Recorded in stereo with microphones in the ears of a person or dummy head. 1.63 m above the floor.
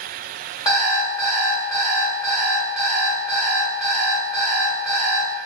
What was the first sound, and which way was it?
An alarm clock, 30° left (ahead or behind).